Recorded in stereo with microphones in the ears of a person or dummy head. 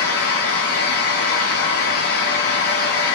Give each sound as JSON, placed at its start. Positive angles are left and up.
{"t": 0.0, "sound": "a fan", "side_deg": 55, "distance_m": 0.9}